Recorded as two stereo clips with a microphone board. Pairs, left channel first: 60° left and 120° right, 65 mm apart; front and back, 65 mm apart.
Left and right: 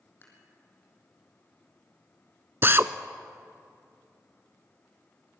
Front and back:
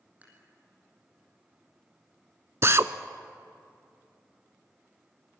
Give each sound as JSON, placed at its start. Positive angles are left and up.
{"t": 0.2, "sound": "dishes clattering", "azimuth_deg": 115, "distance_m": 4.5}
{"t": 2.6, "sound": "a drill", "azimuth_deg": -155, "distance_m": 0.6}